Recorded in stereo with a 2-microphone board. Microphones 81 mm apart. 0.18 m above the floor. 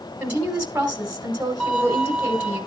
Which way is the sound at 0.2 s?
20° right (ahead or behind).